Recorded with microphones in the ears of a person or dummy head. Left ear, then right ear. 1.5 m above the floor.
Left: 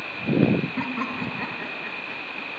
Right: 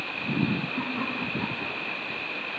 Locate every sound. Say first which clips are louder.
0.8 s laughter: left 1 dB; 80° left, 3 m; by 2.5 s 45° left (ahead or behind), 3 m